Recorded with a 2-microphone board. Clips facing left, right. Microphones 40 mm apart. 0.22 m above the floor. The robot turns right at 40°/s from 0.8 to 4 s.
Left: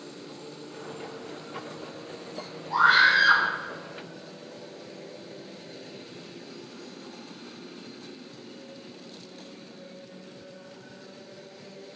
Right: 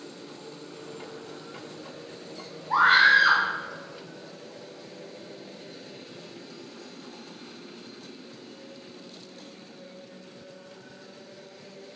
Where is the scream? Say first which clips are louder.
Right 1 dB; 40° right (ahead or behind), 2.0 m; by 3.4 s 35° right (ahead or behind), 2.0 m.